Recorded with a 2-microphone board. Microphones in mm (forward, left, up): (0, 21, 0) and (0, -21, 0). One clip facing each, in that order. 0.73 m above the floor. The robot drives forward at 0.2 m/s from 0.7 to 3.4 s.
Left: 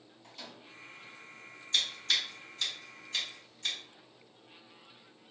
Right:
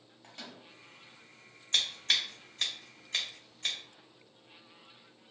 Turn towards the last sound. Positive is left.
turn(degrees=-40)  # may be behind; listen again after turning